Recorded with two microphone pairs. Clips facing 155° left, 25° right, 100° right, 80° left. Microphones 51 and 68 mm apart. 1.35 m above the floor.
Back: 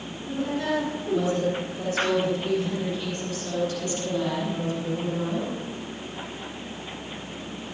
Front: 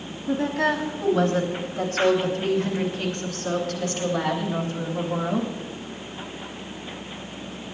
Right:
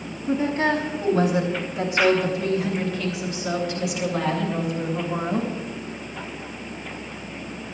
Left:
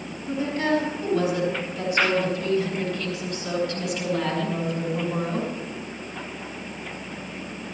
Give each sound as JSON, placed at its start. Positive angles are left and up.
{"t": 0.3, "sound": "a woman speaking", "azimuth_deg": -35, "distance_m": 10.0}